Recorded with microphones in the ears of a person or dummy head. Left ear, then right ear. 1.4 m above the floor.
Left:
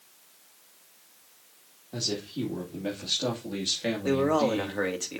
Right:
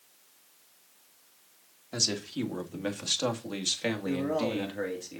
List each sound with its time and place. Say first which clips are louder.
1.9 s a man speaking: right 2 dB; 60° right (ahead or behind), 2.5 m; by 4.8 s 25° right (ahead or behind), 2.5 m
4.0 s a man speaking: left 9 dB; 35° left (ahead or behind), 2.5 m